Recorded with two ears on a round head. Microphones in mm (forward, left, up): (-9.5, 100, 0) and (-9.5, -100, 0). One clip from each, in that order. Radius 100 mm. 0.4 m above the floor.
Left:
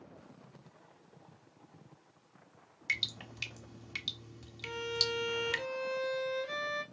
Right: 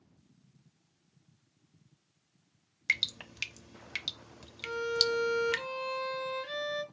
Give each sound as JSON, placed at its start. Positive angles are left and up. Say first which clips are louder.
{"t": 2.9, "sound": "dripping", "louder": "right 4 dB", "side_deg": -30, "distance_m": 0.6}
{"t": 4.6, "sound": "a violin", "louder": "right 4 dB", "side_deg": -45, "distance_m": 1.8}